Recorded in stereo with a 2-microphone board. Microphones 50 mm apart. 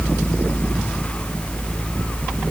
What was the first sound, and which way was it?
Only background noise.